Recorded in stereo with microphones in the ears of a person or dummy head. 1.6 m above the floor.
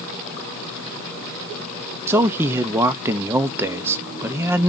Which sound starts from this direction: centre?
A man speaking, at 2.1 s.